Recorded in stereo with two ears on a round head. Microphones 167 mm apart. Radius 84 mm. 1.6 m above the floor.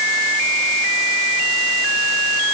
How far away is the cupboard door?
No cupboard door in this recording.